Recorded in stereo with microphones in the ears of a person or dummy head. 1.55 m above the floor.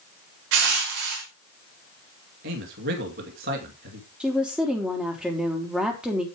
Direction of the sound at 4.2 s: Centre (ahead or behind).